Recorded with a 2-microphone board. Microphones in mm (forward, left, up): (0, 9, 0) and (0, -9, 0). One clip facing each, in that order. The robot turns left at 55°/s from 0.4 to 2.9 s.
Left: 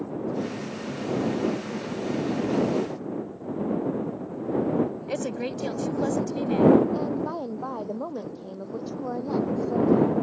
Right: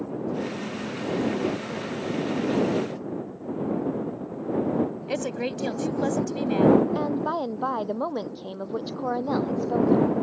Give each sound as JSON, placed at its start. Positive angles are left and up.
{"t": 5.1, "sound": "a woman speaking", "side_deg": -20}
{"t": 7.0, "sound": "a woman speaking", "side_deg": -70}